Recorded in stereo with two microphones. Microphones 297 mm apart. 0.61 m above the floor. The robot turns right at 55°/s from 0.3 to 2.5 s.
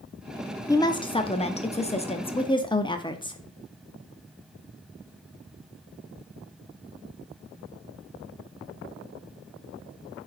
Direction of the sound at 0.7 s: 10° left (ahead or behind).